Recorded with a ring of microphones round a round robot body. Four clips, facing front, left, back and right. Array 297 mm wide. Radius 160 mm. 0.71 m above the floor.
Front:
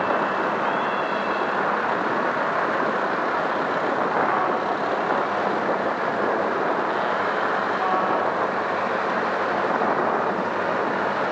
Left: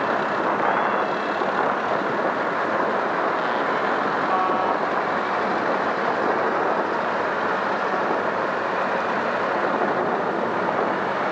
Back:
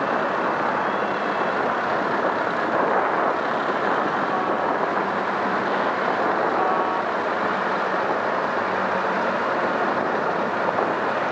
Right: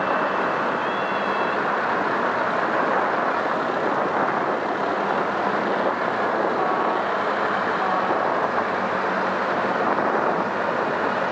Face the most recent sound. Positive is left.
No sound to turn to.